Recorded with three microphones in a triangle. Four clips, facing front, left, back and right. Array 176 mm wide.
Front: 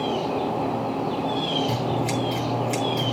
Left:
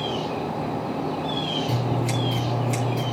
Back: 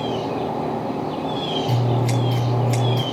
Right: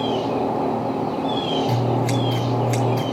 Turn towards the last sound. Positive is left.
turn(degrees=-135)